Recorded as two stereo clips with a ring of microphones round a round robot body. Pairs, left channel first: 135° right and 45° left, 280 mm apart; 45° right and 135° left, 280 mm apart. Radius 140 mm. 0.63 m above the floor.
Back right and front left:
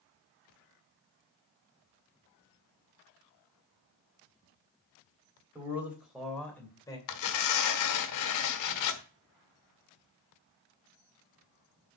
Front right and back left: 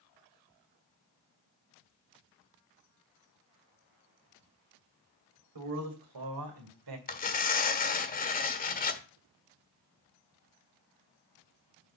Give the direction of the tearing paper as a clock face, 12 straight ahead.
4 o'clock.